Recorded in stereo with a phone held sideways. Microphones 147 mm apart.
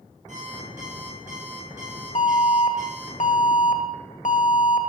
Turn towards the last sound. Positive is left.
turn(degrees=60)  # may be behind; listen again after turning